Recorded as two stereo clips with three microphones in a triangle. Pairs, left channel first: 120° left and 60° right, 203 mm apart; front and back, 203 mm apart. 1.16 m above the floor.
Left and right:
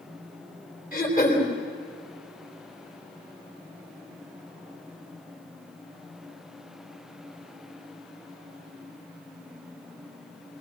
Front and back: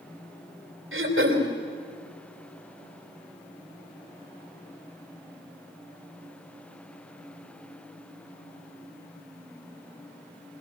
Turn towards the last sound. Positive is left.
turn(degrees=170)